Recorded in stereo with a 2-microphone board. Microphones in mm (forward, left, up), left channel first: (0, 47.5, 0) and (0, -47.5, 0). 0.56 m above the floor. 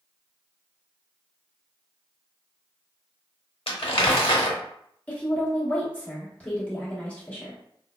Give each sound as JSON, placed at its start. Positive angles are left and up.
{"t": 3.7, "sound": "crumpling", "side_deg": 80, "distance_m": 0.7}
{"t": 5.1, "sound": "a woman speaking", "side_deg": 15, "distance_m": 1.0}